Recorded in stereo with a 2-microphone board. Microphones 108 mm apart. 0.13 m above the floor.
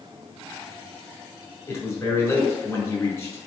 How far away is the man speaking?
About 1.3 m.